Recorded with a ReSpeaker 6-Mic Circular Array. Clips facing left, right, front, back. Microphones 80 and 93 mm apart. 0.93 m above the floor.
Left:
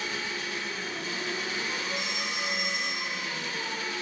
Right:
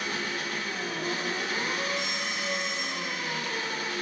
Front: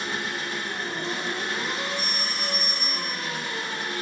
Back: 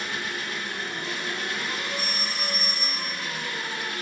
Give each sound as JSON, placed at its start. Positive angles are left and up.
{"t": 0.0, "sound": "an engine running", "azimuth_deg": -60, "distance_m": 1.0}
{"t": 2.0, "sound": "a phone ringing", "azimuth_deg": 105, "distance_m": 2.0}